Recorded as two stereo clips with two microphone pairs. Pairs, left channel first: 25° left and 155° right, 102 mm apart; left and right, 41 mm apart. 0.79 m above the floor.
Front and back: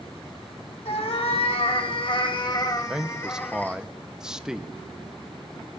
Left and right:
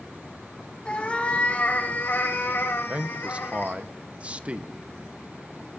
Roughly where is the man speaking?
Right.